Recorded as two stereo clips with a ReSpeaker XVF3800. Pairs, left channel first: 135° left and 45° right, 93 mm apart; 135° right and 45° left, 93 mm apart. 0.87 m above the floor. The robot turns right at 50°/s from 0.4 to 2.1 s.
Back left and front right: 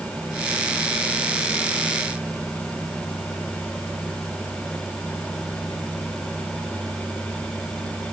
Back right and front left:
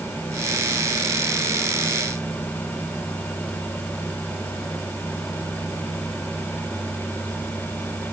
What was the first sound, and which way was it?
Only background noise.